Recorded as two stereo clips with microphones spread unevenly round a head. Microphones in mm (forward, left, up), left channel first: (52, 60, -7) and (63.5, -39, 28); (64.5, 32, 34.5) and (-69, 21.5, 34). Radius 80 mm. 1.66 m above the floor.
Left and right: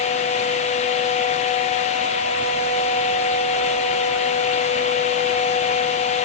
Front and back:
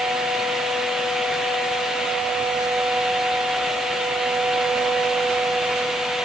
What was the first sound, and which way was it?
Only background noise.